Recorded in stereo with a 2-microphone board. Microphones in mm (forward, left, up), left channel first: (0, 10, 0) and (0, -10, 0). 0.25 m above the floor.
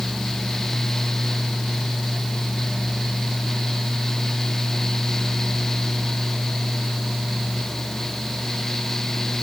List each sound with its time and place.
Only background noise.